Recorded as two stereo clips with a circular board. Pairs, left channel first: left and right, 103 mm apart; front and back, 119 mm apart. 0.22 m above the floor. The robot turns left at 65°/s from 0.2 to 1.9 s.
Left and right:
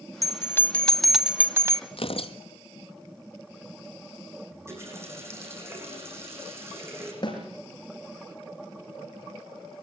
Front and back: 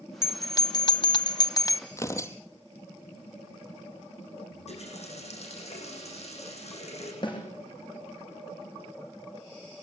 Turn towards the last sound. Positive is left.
turn(degrees=45)